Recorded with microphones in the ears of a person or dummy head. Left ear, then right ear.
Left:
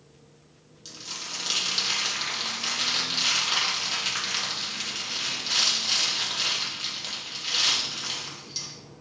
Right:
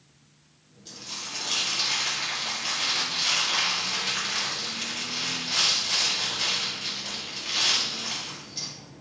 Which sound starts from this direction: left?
Crumpling, at 0.8 s.